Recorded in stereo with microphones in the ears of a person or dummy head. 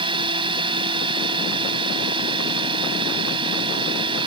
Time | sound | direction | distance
0.0 | a drone | 25° right (ahead or behind) | ?